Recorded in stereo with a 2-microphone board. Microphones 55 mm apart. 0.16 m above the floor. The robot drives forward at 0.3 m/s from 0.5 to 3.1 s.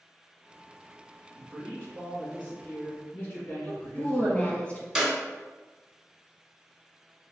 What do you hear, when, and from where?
1.3 s a man speaking: 35° left (ahead or behind), 1.9 m
3.6 s a woman speaking: 25° left (ahead or behind), 1.6 m
5.0 s a clap: 5° right (ahead or behind), 1.5 m